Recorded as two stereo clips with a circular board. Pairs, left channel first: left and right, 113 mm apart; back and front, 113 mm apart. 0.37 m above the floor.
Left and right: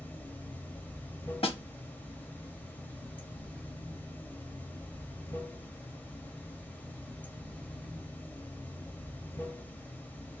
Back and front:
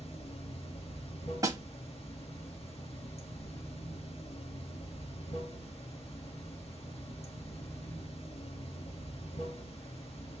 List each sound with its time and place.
0.0 s running water: 160° left, 0.8 m
1.4 s a snare drum: 60° left, 0.8 m